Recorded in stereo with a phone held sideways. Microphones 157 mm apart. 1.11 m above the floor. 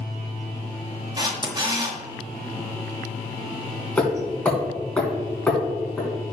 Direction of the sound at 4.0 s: 5° left (ahead or behind).